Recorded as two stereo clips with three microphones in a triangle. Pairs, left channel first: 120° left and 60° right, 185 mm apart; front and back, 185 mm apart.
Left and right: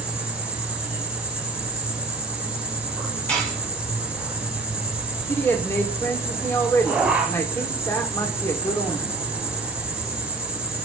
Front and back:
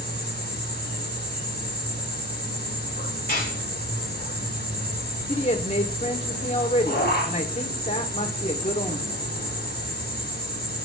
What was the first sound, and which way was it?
An insect, 25° left.